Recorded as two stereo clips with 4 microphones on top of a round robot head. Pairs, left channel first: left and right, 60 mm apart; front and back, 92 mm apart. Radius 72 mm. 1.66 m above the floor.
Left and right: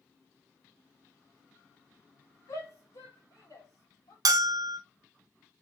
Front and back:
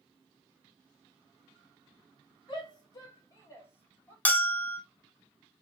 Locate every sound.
2.5 s a shout: 40° left, 2.5 m; by 4.2 s 75° left, 2.5 m
4.2 s a bell: 75° right, 0.6 m